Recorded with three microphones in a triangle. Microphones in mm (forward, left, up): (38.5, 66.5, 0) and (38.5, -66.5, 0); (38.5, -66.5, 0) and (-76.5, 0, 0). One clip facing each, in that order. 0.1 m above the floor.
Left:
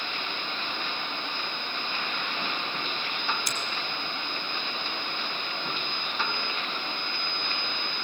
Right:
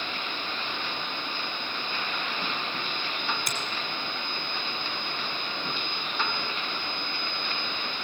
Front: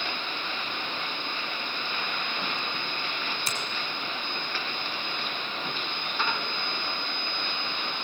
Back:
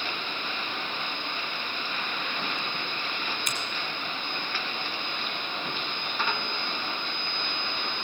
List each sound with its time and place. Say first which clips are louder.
3.5 s a finger snap: right 1 dB, front 1 dB; 80° right, 3 m